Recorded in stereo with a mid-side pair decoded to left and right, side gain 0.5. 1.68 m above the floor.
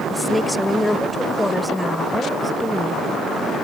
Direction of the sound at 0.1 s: 10° left.